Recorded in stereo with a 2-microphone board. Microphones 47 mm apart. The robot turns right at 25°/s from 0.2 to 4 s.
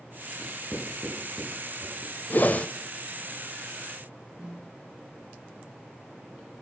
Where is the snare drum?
15° right (ahead or behind), 4.5 m.